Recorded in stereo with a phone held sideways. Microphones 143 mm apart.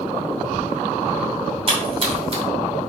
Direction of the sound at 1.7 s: 40° right (ahead or behind).